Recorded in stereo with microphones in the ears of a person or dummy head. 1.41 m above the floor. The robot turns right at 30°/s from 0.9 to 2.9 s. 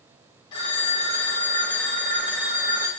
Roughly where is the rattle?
I don't hear a rattle.